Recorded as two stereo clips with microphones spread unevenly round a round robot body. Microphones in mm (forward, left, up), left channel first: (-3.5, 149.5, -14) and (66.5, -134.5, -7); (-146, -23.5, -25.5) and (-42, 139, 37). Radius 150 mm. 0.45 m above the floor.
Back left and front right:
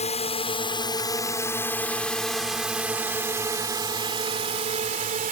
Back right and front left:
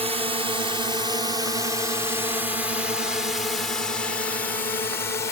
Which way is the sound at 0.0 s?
120° left.